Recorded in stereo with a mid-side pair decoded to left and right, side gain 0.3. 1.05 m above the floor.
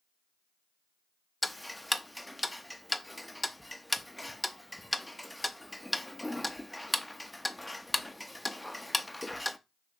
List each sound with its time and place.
1.4 s ticking: 5° left, 0.6 m